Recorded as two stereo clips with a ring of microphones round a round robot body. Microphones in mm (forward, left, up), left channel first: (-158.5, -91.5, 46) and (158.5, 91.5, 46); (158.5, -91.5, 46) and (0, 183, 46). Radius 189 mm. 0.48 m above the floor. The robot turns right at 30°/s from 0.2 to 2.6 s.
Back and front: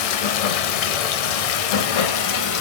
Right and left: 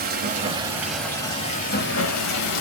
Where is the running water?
175° right, 0.8 m; by 2.6 s 100° right, 0.8 m.